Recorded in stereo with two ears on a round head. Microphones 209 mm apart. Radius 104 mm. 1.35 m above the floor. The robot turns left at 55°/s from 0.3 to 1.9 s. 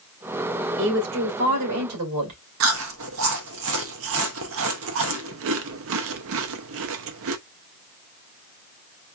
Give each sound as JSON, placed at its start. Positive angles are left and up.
{"t": 0.8, "sound": "a woman speaking", "azimuth_deg": -40, "distance_m": 2.0}
{"t": 2.6, "sound": "chewing", "side_deg": -60, "distance_m": 0.6}